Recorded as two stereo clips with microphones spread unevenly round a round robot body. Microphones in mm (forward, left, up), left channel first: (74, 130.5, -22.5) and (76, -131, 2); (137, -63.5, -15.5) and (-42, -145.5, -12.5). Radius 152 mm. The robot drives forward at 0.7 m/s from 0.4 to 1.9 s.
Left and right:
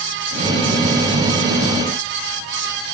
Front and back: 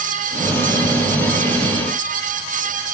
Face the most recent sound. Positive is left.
No sound to turn to.